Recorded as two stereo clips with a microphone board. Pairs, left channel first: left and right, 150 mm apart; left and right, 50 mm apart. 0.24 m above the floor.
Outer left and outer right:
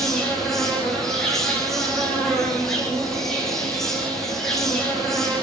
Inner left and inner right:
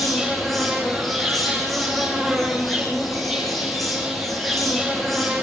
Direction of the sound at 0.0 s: Centre (ahead or behind).